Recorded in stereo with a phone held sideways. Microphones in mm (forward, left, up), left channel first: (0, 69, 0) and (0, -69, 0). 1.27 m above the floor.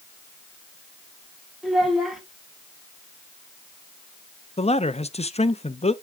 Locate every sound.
1.6 s a child speaking: centre (ahead or behind), 2.5 m
4.6 s a man speaking: 50° left (ahead or behind), 0.7 m